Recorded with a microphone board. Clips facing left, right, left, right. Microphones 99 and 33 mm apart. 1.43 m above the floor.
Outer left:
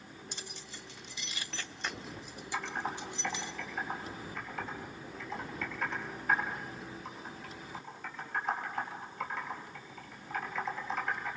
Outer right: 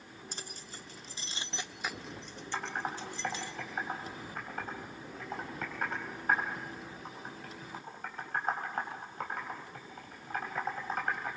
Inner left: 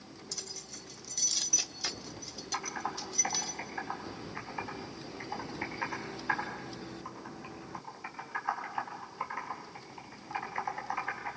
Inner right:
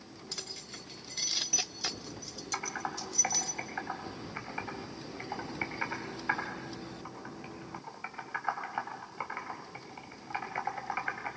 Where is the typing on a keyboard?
45° right (ahead or behind), 4.5 m.